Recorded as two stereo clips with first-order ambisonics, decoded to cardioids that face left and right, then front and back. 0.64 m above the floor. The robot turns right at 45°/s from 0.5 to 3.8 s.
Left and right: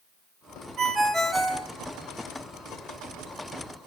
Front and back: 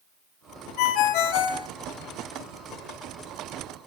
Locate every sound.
0.8 s a ringtone: 30° right, 0.8 m; by 1.7 s 10° left, 0.8 m